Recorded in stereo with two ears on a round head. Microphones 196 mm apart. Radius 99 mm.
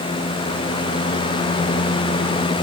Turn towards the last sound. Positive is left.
No sound to turn to.